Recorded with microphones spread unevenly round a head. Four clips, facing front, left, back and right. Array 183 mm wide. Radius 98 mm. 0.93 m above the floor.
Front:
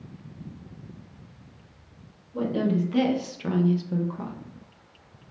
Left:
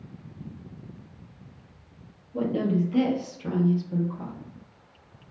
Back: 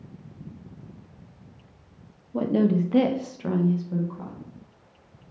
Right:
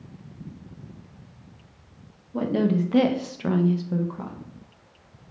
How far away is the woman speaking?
About 0.7 m.